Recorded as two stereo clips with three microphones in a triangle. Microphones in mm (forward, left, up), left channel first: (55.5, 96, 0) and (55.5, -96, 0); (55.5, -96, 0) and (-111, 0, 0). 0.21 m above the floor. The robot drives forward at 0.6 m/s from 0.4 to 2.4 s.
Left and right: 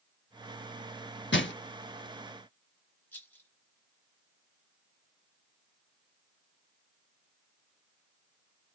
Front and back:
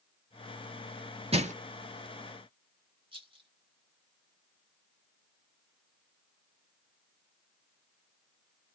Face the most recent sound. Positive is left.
turn(degrees=160)